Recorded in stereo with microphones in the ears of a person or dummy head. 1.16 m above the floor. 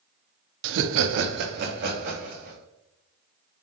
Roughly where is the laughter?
Right.